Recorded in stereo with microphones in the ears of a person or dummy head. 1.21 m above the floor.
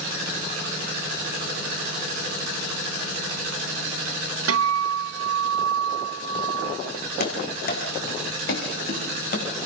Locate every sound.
4.5 s a guitar: 70° right (ahead or behind), 1.3 m
7.2 s running footsteps: 55° left (ahead or behind), 5.5 m; by 9.7 s 60° left (ahead or behind), 8.5 m